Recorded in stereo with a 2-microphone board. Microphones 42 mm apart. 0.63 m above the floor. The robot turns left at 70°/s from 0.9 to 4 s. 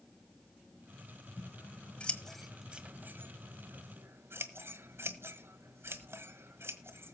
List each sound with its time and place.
1.4 s scissors: 70° left (ahead or behind), 1.3 m; by 7.2 s 70° right (ahead or behind), 1.3 m